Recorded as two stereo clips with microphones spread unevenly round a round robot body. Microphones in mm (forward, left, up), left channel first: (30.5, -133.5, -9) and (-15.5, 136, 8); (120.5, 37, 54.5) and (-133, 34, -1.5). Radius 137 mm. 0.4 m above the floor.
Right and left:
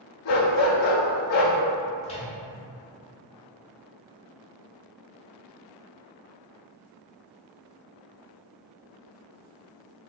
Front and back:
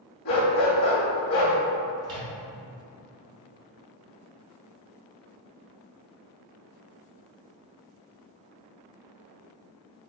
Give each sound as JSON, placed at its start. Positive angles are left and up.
{"t": 0.2, "sound": "a dog barking", "azimuth_deg": -40, "distance_m": 0.7}
{"t": 2.0, "sound": "a microwave", "azimuth_deg": -130, "distance_m": 0.8}